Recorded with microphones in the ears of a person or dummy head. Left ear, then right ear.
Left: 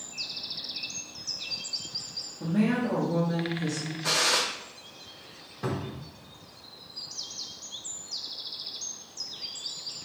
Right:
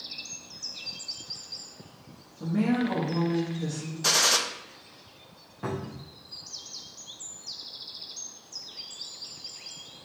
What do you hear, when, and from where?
2.4 s a woman speaking: centre (ahead or behind), 1.2 m
4.0 s a gunshot: 85° right, 0.6 m
5.6 s a cupboard door: 5° right (ahead or behind), 0.5 m